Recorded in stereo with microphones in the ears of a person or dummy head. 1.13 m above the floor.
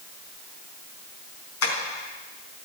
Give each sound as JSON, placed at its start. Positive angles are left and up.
{"t": 1.6, "sound": "tapping", "side_deg": 80, "distance_m": 4.0}